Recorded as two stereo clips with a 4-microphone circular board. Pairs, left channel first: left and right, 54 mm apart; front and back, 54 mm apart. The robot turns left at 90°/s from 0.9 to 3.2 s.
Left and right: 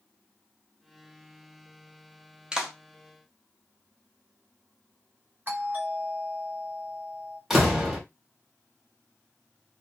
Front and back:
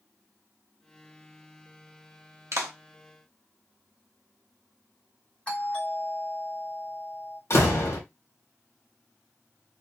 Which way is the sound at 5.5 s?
55° right.